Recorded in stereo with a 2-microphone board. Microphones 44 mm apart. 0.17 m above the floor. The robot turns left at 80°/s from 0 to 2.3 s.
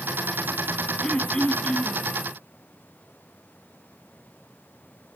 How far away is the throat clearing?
About 1.1 m.